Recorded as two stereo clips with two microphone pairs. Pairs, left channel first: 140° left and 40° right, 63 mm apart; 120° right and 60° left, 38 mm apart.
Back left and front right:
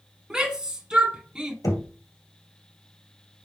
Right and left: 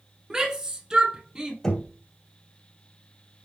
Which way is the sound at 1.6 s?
165° left.